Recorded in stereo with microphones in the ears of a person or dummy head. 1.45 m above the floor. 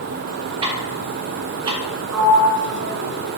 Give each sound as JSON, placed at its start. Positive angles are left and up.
{"t": 0.6, "sound": "ticking", "side_deg": -20, "distance_m": 1.1}
{"t": 2.1, "sound": "a sliding door", "side_deg": -85, "distance_m": 1.1}